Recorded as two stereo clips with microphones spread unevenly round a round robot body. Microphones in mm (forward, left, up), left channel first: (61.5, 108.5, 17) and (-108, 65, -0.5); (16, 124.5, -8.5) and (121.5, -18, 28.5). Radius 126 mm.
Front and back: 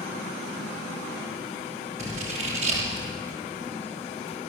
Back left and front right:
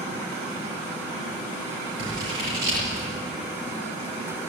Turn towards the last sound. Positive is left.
turn(degrees=-100)